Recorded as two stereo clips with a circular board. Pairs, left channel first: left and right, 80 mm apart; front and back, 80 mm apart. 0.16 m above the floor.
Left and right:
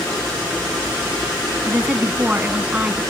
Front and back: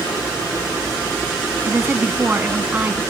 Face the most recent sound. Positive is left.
turn(degrees=-140)